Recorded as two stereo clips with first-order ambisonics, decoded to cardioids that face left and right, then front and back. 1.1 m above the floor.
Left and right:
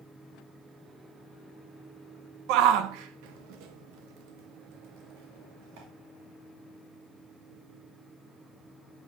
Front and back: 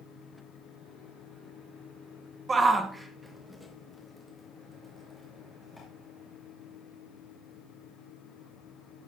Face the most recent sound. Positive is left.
turn(degrees=-80)